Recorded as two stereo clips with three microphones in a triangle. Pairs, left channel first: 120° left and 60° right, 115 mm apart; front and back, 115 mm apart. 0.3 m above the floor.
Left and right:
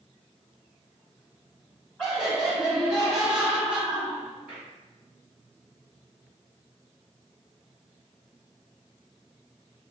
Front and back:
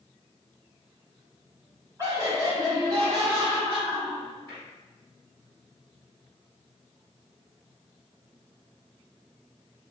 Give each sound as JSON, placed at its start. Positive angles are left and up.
{"t": 2.0, "sound": "laughter", "azimuth_deg": -150, "distance_m": 1.6}